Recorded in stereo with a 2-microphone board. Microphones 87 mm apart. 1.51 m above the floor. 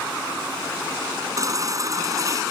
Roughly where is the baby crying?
Right.